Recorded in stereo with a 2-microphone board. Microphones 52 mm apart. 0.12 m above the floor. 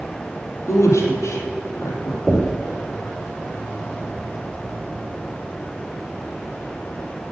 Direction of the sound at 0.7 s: 65° left (ahead or behind).